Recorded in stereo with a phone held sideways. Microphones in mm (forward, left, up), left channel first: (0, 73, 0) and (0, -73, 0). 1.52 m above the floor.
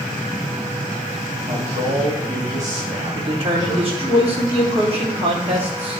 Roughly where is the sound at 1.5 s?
Right.